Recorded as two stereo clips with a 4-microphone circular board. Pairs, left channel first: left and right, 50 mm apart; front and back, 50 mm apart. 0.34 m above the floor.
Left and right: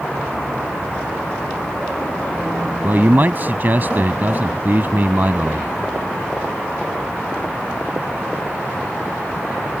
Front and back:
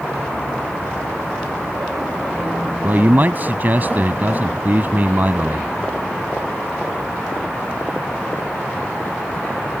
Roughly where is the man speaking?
Behind right.